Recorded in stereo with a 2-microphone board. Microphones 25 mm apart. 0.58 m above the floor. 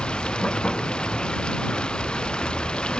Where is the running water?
40° left (ahead or behind).